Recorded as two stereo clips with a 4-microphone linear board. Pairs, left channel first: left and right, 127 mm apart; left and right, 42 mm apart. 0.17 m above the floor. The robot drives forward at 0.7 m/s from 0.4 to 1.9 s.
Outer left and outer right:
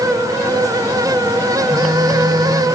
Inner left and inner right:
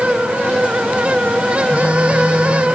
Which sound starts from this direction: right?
A phone buzzing, at 1.7 s.